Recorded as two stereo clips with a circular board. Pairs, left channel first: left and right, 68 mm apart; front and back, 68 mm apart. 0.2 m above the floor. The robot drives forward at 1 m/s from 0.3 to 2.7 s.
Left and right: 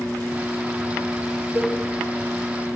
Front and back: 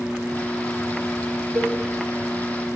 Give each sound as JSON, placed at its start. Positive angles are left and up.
{"t": 1.6, "sound": "a cowbell", "azimuth_deg": -140, "distance_m": 6.5}